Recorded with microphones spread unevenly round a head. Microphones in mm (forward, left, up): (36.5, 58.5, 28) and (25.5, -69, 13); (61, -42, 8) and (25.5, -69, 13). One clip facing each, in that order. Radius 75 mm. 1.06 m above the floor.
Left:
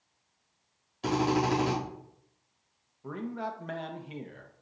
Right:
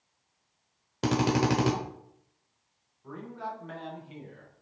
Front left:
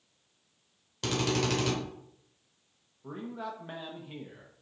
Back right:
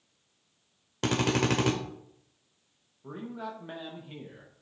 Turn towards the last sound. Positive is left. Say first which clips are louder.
# left 3 dB, even
turn(degrees=125)